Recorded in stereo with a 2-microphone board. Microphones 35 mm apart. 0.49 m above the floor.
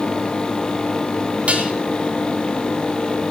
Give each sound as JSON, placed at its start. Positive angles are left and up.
{"t": 1.5, "sound": "dishes clattering", "side_deg": -40, "distance_m": 2.5}